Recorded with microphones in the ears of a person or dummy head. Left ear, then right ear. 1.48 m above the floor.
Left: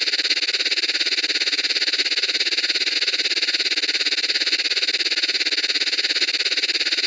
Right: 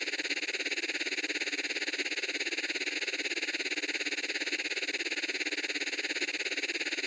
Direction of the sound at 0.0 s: 50° left (ahead or behind).